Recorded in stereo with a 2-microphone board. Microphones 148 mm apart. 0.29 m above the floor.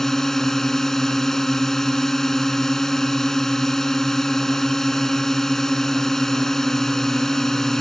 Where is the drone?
5° left (ahead or behind).